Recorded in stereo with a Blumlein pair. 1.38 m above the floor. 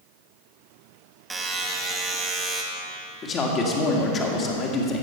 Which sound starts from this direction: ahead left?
A man speaking, at 3.2 s.